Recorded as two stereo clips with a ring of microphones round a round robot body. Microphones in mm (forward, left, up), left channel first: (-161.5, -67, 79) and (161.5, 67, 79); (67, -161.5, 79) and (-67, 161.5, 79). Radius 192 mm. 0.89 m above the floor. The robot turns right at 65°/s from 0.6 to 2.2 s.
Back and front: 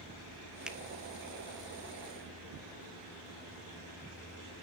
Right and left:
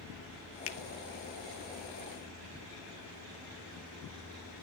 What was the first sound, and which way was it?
A finger snap, 65° right.